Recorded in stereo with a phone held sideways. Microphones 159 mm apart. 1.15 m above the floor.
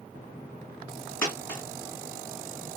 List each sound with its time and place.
1.2 s a dropped coin: 15° left (ahead or behind), 1.8 m